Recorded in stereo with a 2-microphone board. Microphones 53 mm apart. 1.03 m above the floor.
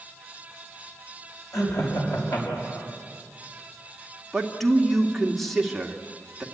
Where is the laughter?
85° left, 6.5 m.